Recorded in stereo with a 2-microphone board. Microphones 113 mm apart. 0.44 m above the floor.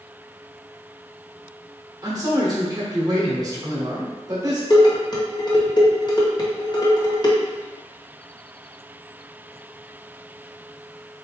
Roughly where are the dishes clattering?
Left.